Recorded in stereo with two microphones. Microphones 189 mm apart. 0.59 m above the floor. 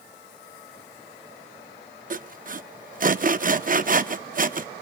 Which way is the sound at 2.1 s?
45° right (ahead or behind).